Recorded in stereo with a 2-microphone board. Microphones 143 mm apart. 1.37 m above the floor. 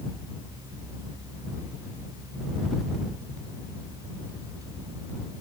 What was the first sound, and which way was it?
Only background noise.